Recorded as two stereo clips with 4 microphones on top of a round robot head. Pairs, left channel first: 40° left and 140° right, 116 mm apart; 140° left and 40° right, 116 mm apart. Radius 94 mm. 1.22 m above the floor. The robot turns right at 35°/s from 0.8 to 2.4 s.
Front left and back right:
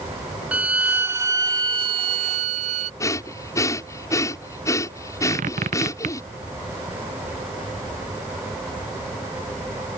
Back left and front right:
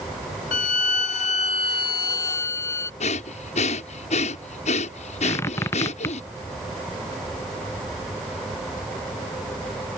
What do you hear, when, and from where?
0.5 s a violin: 145° left; by 2.9 s 160° right
3.0 s breathing: 105° left
5.2 s a squeak: 155° right